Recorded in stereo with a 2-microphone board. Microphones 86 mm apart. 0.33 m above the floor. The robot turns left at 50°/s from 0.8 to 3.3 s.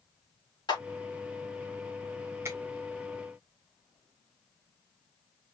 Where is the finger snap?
30° right (ahead or behind), 1.8 m; by 2.6 s 40° right (ahead or behind), 1.8 m.